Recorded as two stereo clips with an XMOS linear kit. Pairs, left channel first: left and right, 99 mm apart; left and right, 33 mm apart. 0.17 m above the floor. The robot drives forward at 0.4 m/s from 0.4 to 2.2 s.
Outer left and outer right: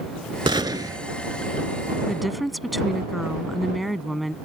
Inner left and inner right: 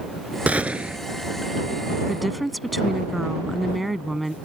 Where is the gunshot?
55° right (ahead or behind); by 1.0 s 40° right (ahead or behind).